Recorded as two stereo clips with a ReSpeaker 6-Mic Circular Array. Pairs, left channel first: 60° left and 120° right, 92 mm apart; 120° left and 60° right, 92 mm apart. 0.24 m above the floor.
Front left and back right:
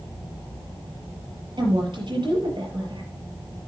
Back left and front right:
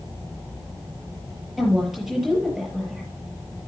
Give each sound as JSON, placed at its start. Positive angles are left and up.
{"t": 1.6, "sound": "a woman speaking", "azimuth_deg": -145, "distance_m": 6.0}